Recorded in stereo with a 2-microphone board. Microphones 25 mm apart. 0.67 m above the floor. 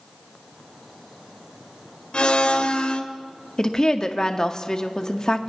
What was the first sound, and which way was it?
A blender, 45° left (ahead or behind).